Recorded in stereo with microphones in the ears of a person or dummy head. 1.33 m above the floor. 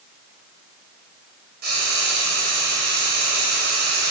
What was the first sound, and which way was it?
Frying, 55° right (ahead or behind).